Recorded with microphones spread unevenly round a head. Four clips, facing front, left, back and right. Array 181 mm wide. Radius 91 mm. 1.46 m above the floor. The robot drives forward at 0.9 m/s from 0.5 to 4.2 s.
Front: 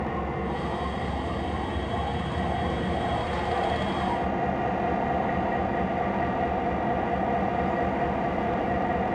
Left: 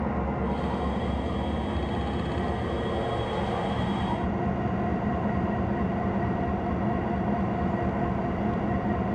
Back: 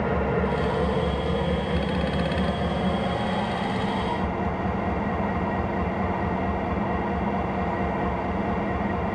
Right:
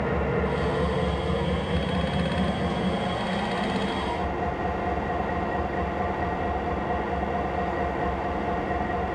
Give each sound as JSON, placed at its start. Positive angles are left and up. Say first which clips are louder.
{"t": 0.0, "sound": "an engine running", "louder": "right 3 dB, back 5 dB", "azimuth_deg": -140, "distance_m": 5.0}